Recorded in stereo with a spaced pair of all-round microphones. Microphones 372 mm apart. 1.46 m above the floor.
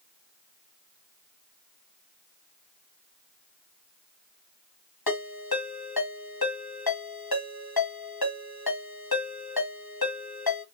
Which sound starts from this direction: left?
A ringtone, at 5.1 s.